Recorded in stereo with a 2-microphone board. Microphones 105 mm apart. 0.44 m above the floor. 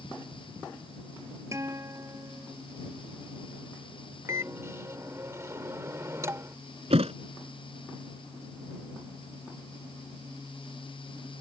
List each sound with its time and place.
1.5 s a guitar: 30° right (ahead or behind)
4.3 s a microwave: 25° right (ahead or behind)
6.9 s a thud: 80° right